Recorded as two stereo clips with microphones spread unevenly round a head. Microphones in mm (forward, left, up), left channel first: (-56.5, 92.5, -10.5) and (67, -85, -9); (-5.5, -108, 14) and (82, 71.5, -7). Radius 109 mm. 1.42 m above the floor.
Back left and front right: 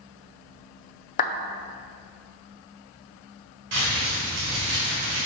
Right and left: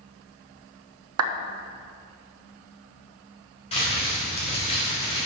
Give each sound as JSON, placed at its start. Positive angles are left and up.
{"t": 1.2, "sound": "a clap", "azimuth_deg": 70, "distance_m": 0.7}
{"t": 3.7, "sound": "crumpling", "azimuth_deg": -60, "distance_m": 3.5}